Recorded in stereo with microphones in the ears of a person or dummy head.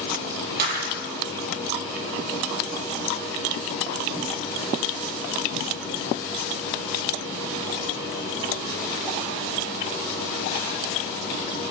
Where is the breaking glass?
60° right (ahead or behind), 9.5 m.